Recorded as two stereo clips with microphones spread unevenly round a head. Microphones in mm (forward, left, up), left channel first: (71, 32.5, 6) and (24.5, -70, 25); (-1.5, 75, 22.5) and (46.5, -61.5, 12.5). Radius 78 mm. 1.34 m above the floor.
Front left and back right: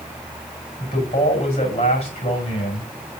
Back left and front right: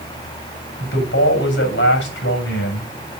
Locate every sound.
0.8 s a man speaking: 120° left, 6 m